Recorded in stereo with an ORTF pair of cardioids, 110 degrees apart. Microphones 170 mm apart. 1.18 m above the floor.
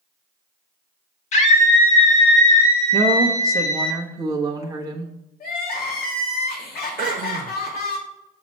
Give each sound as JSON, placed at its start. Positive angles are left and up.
{"t": 1.3, "sound": "a scream", "azimuth_deg": 45, "distance_m": 2.0}
{"t": 2.9, "sound": "a woman speaking", "azimuth_deg": -20, "distance_m": 1.2}
{"t": 5.4, "sound": "crying", "azimuth_deg": 65, "distance_m": 2.5}
{"t": 7.0, "sound": "throat clearing", "azimuth_deg": -55, "distance_m": 0.8}